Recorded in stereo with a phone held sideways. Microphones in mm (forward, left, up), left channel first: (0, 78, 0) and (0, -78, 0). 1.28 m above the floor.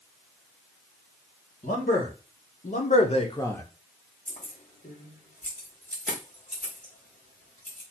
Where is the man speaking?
70° left (ahead or behind), 1.8 m; by 3.6 s 10° left (ahead or behind), 0.6 m.